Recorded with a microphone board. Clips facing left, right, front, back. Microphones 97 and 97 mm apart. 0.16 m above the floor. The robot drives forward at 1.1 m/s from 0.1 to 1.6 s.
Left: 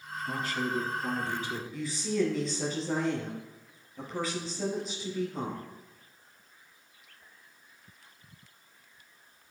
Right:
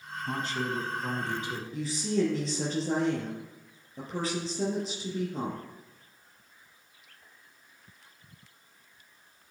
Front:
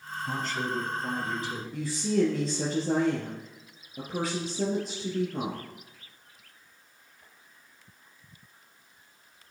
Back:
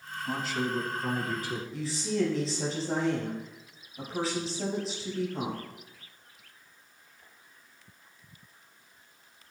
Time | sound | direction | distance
0.2 | a man speaking | 75° right | 1.1 m
1.7 | a woman speaking | 40° right | 4 m